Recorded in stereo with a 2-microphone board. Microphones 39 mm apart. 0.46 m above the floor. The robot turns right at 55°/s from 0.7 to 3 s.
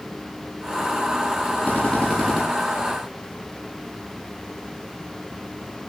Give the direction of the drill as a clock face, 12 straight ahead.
7 o'clock.